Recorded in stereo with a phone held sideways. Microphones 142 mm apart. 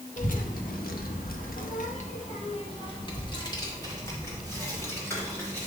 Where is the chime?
No chime in this recording.